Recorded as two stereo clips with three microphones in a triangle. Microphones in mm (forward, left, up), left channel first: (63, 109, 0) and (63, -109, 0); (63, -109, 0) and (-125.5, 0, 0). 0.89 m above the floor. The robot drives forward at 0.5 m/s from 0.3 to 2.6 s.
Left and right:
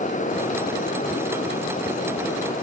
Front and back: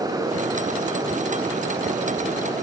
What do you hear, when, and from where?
Only background noise.